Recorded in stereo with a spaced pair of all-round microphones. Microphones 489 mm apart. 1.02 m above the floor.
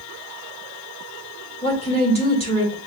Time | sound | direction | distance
1.6 | a woman speaking | 10° left (ahead or behind) | 1.6 m